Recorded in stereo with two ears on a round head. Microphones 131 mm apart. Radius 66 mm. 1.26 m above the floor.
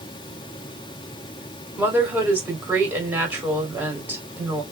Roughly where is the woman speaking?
Centre.